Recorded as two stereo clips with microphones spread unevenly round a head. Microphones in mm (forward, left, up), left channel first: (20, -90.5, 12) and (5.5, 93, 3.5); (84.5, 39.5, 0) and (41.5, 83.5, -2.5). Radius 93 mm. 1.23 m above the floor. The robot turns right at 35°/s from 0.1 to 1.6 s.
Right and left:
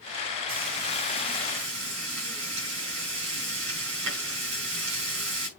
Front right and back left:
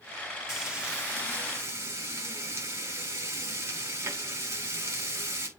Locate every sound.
0.5 s frying: 50° left, 5 m; by 5.5 s 90° left, 5 m